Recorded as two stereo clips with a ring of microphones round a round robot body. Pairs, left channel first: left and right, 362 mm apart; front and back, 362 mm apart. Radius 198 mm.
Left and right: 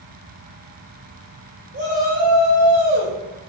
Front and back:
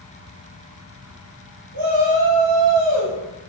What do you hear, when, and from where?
1.7 s a shout: 150° right, 3 m